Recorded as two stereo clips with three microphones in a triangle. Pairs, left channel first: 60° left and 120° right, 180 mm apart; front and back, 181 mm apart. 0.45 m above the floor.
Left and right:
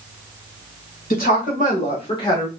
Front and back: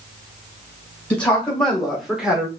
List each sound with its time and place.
1.1 s a woman speaking: 80° left, 1.8 m; by 2.5 s 110° left, 1.0 m